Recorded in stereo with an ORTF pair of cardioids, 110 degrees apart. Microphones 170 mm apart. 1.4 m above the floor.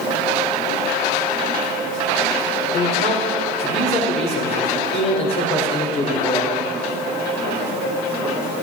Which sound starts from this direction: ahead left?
A man speaking, at 2.7 s.